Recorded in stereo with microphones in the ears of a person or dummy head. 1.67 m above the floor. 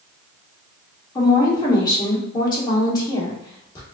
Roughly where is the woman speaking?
Left.